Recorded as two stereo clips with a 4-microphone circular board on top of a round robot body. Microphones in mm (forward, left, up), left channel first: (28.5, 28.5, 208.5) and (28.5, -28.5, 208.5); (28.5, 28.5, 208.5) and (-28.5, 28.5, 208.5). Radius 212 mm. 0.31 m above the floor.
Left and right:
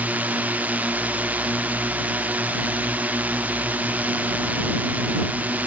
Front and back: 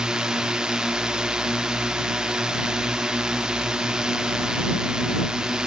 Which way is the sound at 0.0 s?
115° right.